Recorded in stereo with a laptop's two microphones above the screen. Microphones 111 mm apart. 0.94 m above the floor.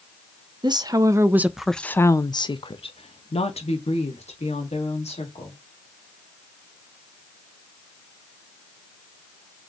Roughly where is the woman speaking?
Right.